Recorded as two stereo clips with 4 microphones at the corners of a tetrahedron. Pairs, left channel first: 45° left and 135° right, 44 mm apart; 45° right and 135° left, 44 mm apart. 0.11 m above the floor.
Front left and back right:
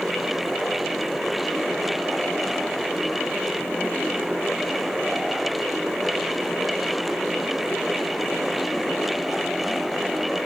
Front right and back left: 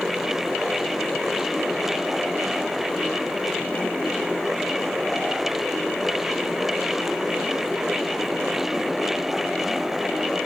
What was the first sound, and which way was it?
Only background noise.